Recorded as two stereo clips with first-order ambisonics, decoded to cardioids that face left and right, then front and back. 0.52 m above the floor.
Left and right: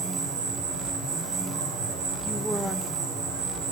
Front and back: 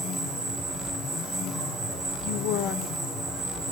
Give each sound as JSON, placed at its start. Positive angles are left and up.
{"t": 0.0, "sound": "an insect", "azimuth_deg": -105, "distance_m": 10.0}
{"t": 2.2, "sound": "a woman speaking", "azimuth_deg": 5, "distance_m": 1.4}